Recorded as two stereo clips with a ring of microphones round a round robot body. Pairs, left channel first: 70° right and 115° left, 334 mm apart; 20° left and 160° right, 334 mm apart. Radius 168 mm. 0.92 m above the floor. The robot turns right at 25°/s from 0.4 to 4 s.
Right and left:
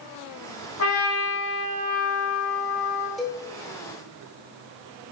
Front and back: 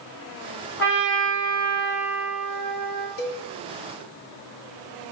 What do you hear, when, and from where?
0.8 s a trumpet: 35° right, 1.6 m; by 3.1 s 25° left, 1.6 m
3.2 s a cowbell: 20° left, 0.6 m; by 3.5 s 30° left, 0.6 m